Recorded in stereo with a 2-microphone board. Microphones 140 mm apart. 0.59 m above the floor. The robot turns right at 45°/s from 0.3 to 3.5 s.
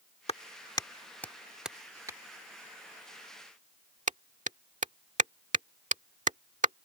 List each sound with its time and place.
0.3 s a clap: 45° left (ahead or behind); by 6.8 s 55° right (ahead or behind)